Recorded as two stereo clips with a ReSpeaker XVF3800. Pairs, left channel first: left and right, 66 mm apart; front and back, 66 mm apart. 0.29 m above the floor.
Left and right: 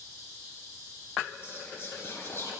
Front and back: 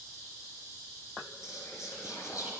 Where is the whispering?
35° left, 4 m.